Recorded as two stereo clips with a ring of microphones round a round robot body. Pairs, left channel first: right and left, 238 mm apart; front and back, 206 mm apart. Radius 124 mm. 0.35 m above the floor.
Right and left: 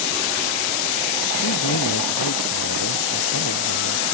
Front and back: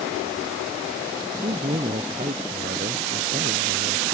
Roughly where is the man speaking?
Behind right.